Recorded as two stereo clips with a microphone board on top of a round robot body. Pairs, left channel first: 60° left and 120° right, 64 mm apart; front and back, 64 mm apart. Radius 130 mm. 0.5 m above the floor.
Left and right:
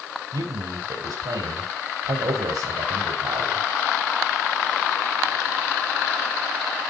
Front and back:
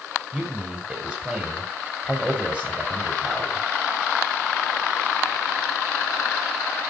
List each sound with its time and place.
0.3 s a man speaking: 105° right, 3 m